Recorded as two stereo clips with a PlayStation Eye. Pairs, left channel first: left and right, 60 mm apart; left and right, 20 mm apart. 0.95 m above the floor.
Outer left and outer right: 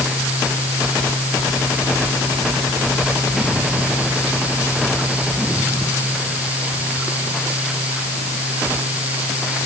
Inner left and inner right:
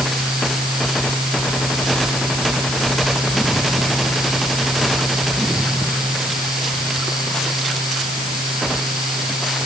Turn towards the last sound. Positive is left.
No sound to turn to.